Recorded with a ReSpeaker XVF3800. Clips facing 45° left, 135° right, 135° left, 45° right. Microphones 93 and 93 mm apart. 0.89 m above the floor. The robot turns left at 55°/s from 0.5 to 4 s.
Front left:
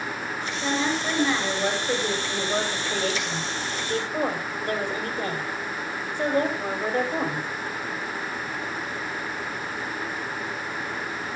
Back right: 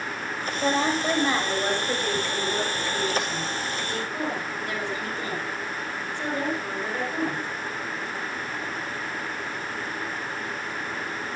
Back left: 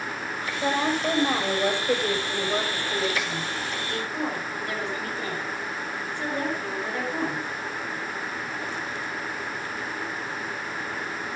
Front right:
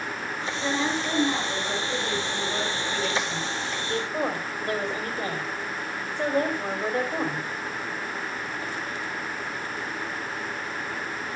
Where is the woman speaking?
165° right, 4.5 m; by 7.5 s 10° left, 4.5 m.